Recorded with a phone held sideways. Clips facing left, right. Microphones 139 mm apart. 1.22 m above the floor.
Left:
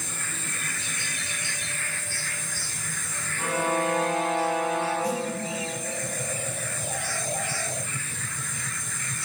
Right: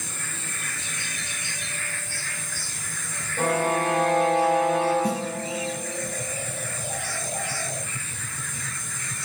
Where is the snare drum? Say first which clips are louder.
Right 2 dB; 65° right (ahead or behind), 6 m.